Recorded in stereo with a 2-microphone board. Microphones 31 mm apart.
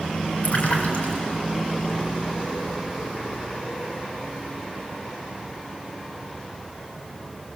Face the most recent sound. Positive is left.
turn(degrees=50)  # may be behind; listen again after turning